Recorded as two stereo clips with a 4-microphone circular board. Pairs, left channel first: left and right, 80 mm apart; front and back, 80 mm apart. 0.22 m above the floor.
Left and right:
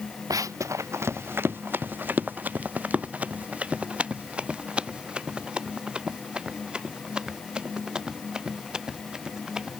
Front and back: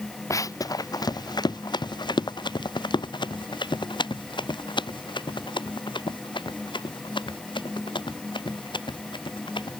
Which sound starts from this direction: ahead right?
Running footsteps, at 0.3 s.